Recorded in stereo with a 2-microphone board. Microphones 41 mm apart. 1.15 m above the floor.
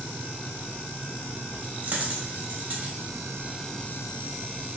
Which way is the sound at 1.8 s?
40° right (ahead or behind).